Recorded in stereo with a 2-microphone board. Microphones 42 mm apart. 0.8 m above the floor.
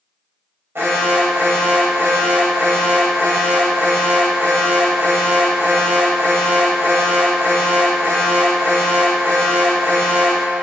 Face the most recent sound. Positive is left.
turn(degrees=-80)